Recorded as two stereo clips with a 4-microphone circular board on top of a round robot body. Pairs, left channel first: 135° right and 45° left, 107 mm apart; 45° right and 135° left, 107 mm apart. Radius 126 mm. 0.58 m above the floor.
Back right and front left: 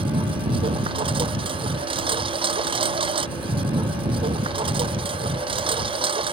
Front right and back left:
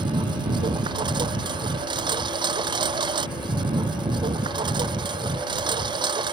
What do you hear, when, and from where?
0.0 s a lawn mower: 85° left